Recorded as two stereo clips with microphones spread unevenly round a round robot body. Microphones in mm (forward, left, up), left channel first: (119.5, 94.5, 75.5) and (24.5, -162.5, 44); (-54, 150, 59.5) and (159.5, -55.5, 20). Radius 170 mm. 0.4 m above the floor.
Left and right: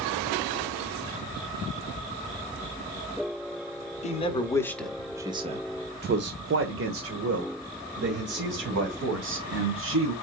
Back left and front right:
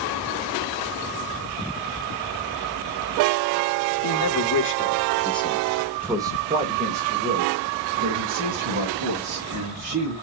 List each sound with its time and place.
4.0 s a man speaking: 135° left, 1.2 m; by 10.1 s 85° right, 3.5 m